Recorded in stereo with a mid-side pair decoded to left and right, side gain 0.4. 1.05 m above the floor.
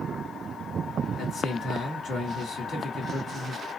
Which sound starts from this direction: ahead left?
A man speaking, at 1.2 s.